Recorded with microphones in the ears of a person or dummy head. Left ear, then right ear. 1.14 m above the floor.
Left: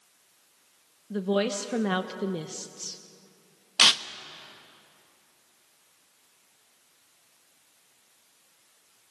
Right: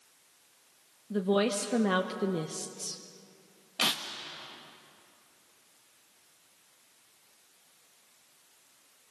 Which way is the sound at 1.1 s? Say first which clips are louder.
Left 1 dB; 10° left (ahead or behind).